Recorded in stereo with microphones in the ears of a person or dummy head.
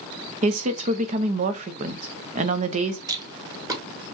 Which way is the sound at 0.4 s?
35° right (ahead or behind).